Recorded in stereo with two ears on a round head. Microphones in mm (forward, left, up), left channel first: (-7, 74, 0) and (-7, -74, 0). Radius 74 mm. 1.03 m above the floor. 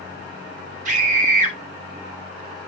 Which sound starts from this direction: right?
A scream, at 0.8 s.